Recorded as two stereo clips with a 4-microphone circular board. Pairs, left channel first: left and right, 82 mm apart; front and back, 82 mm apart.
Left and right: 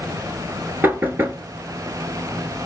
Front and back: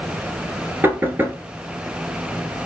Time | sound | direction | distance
0.8 | knocking | 135° right | 1.0 m